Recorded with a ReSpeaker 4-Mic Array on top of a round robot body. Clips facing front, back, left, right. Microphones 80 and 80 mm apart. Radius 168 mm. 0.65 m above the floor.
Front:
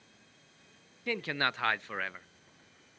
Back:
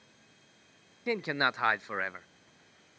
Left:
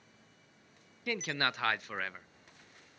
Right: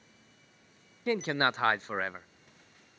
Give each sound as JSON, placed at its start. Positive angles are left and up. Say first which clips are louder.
{"t": 1.1, "sound": "a man speaking", "louder": "back 3 dB, right 6 dB", "azimuth_deg": -125, "distance_m": 0.6}